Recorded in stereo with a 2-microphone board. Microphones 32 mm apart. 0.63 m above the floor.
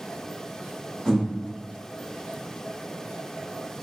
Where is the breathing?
15° right (ahead or behind), 1.3 m.